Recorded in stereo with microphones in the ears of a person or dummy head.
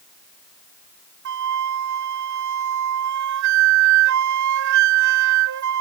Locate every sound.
1.2 s a flute: 65° right (ahead or behind)